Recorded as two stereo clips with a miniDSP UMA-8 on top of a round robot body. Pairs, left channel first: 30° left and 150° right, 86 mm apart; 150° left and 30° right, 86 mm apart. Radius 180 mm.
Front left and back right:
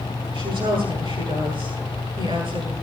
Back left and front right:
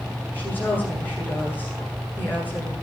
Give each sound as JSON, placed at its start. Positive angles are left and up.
{"t": 0.3, "sound": "a woman speaking", "azimuth_deg": -140, "distance_m": 9.0}